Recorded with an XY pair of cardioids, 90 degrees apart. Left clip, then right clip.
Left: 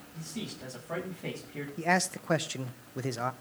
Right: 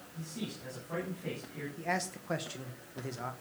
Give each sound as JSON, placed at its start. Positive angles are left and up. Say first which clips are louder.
{"t": 0.1, "sound": "a man speaking", "louder": "left 2 dB", "azimuth_deg": 55, "distance_m": 10.0}
{"t": 1.8, "sound": "a man speaking", "louder": "left 7 dB", "azimuth_deg": 60, "distance_m": 1.1}